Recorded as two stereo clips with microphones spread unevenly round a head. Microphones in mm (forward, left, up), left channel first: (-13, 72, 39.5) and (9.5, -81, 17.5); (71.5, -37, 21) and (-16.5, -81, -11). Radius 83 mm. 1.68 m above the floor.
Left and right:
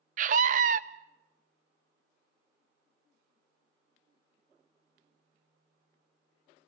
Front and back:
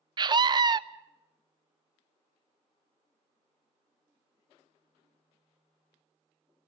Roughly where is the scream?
Right.